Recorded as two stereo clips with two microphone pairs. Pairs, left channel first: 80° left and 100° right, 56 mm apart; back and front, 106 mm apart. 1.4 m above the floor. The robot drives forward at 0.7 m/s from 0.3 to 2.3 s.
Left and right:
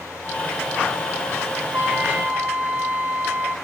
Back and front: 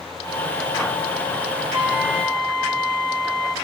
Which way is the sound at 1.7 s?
60° right.